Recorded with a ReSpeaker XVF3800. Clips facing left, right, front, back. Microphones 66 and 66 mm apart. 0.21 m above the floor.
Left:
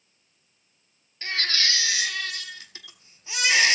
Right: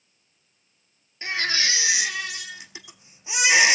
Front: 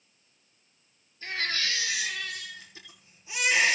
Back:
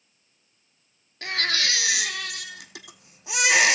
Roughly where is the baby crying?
Behind.